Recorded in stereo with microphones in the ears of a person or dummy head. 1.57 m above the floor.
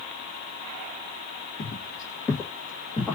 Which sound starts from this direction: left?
Footsteps, at 1.6 s.